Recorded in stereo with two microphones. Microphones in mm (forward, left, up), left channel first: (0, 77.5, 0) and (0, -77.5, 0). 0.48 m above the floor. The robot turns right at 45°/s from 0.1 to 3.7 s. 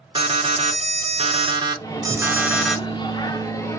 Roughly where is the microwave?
Left.